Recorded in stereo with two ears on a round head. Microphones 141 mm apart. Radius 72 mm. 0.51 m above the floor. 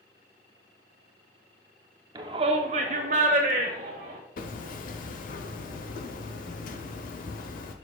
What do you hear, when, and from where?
2.1 s a shout: 25° right (ahead or behind), 0.7 m; by 4.2 s 50° right (ahead or behind), 1.9 m
4.4 s hammering: 55° left (ahead or behind), 0.8 m